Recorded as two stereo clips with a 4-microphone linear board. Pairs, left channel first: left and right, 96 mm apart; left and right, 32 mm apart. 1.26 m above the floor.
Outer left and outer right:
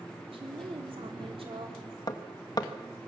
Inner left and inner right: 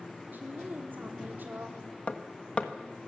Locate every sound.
0.3 s a woman speaking: 75° right (ahead or behind), 3.5 m
2.1 s hammering: 45° left (ahead or behind), 1.3 m